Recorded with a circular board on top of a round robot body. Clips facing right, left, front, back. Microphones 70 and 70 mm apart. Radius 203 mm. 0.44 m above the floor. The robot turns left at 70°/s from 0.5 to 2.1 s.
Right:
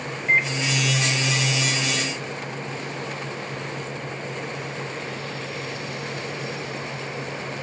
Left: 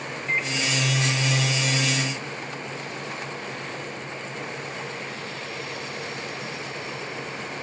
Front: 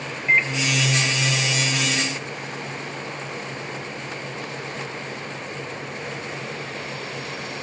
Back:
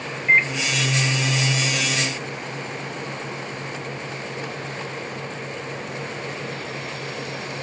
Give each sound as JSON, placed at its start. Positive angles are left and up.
{"t": 0.3, "sound": "a microwave", "azimuth_deg": -115, "distance_m": 0.9}